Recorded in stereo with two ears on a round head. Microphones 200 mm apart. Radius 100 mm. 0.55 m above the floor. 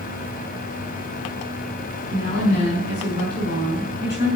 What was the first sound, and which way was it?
A woman speaking, 40° left (ahead or behind).